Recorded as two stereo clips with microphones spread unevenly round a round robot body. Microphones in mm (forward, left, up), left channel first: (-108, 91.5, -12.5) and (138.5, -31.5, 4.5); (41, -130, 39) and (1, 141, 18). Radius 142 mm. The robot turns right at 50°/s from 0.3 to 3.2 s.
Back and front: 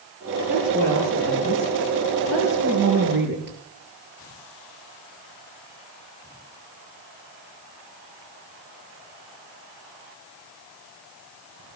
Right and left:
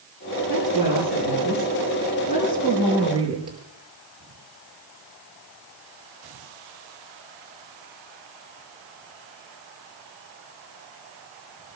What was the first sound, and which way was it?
A woman speaking, 110° right.